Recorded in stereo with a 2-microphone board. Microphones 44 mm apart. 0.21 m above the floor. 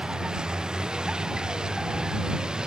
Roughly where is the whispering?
No whispering in this recording.